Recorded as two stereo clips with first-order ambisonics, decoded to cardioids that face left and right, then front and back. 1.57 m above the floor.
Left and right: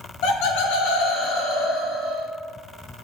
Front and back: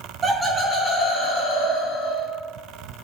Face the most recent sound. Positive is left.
turn(degrees=25)